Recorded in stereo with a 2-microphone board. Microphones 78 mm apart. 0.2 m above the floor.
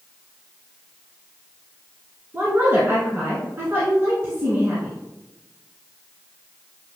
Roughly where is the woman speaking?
Right.